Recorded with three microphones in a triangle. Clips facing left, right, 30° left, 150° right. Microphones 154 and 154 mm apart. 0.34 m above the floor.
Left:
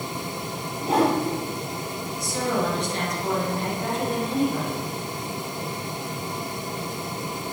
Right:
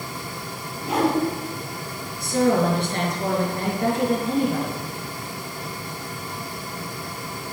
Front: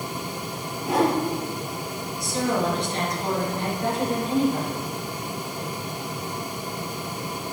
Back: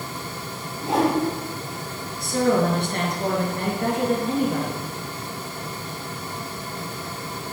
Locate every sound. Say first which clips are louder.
0.8 s a whoosh: left 1 dB, back 1 dB; 145° left, 5 m
2.2 s a woman speaking: right 7 dB, back 5 dB; 120° right, 4.5 m